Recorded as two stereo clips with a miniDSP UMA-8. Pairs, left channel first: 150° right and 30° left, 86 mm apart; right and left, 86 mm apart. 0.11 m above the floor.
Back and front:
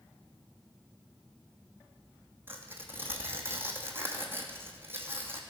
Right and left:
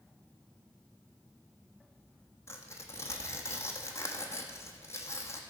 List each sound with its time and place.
2.5 s tearing paper: 35° right, 1.4 m